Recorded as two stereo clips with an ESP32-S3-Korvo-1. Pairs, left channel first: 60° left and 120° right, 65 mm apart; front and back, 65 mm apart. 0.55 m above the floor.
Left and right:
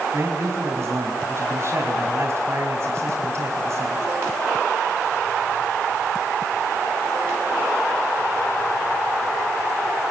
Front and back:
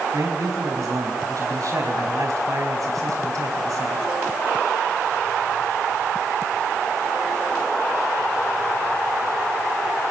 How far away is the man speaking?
About 4 m.